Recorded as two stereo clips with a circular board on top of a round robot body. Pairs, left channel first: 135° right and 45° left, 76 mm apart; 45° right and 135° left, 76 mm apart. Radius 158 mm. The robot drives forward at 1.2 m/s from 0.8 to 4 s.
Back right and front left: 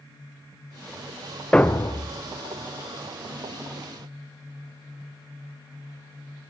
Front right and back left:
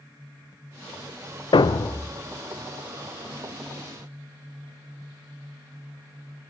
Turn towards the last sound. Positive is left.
turn(degrees=-165)